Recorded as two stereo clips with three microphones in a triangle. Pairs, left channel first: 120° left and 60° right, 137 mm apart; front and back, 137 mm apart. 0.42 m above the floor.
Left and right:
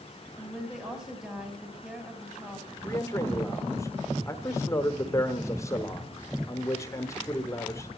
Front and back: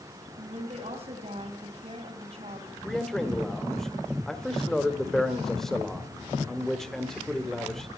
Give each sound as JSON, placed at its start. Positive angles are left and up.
{"t": 0.4, "sound": "a woman speaking", "azimuth_deg": -145, "distance_m": 3.5}
{"t": 2.8, "sound": "a man speaking", "azimuth_deg": 85, "distance_m": 1.2}